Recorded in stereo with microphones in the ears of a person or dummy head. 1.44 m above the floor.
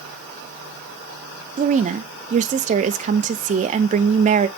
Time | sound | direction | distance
1.6 | a woman speaking | 35° right (ahead or behind) | 0.6 m